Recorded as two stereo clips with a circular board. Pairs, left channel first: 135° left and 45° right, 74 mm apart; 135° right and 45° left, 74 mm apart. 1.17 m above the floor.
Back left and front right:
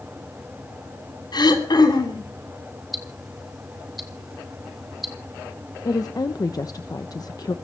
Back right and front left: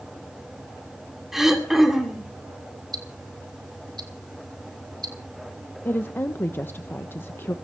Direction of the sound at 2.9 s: 40° left.